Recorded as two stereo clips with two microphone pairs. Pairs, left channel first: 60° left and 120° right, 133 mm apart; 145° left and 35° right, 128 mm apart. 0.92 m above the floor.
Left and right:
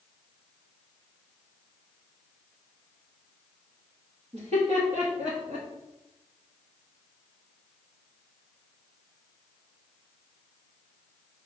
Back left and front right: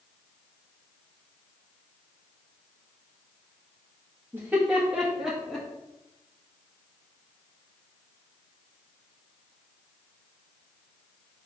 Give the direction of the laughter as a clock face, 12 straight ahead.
3 o'clock.